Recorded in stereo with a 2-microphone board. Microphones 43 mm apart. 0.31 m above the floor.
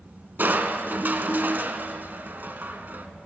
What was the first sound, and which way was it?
Crushing, 50° right (ahead or behind).